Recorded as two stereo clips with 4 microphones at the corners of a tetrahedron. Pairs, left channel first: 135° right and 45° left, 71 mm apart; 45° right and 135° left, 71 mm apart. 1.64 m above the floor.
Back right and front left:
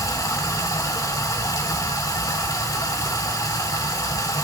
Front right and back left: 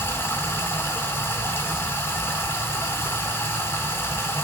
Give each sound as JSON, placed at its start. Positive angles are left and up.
{"t": 0.0, "sound": "running water", "azimuth_deg": -100, "distance_m": 2.5}